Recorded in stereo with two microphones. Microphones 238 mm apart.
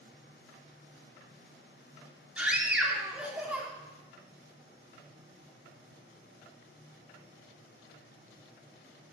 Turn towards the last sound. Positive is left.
turn(degrees=-5)  # may be behind; listen again after turning